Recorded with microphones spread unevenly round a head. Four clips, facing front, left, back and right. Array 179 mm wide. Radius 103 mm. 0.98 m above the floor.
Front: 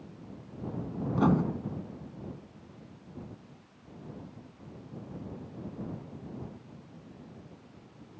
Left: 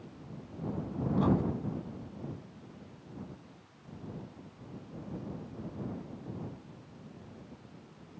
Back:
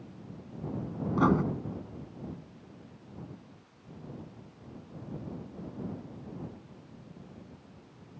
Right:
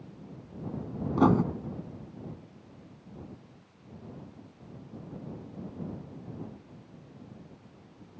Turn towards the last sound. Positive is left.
turn(degrees=-95)